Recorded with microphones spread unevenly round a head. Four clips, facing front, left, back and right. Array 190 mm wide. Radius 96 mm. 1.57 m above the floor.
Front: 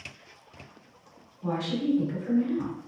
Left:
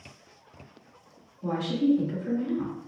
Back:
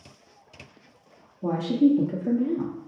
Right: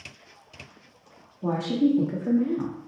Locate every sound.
1.4 s a woman speaking: 150° right, 0.8 m